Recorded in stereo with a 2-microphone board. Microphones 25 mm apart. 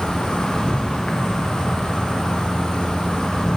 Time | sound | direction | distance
0.0 | an insect | 35° left (ahead or behind) | 0.9 m